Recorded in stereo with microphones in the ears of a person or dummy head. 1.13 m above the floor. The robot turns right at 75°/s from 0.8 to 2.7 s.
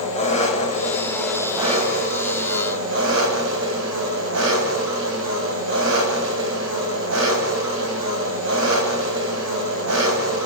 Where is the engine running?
145° left, 4.5 m; by 10.5 s 70° right, 4.5 m.